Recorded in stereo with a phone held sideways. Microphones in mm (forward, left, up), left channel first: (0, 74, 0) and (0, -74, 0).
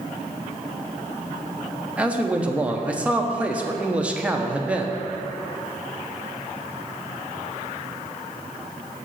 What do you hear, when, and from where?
2.0 s a man speaking: 10° right (ahead or behind), 0.7 m